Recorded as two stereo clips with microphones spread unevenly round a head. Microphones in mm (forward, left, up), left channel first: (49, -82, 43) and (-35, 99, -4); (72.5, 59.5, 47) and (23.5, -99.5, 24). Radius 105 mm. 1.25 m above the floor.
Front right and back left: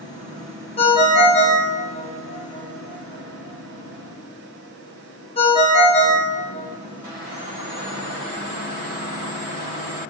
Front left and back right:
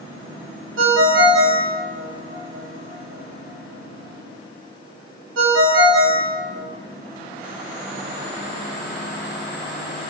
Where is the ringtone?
125° right, 0.9 m.